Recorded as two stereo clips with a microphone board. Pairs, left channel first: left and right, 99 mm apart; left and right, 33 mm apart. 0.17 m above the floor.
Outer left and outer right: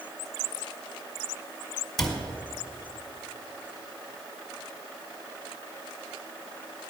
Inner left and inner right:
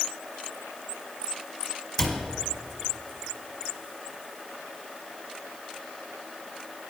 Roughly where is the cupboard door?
Centre.